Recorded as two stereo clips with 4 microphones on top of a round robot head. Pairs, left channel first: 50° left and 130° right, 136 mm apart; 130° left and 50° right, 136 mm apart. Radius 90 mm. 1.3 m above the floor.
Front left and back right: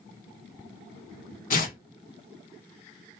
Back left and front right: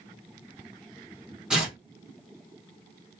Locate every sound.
1.5 s tearing paper: 35° left, 1.9 m